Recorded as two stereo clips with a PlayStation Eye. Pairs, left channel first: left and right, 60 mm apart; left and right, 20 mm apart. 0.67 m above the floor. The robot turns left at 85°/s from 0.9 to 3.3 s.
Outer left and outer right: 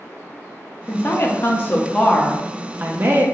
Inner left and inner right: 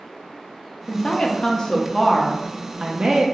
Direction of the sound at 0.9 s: 120° left.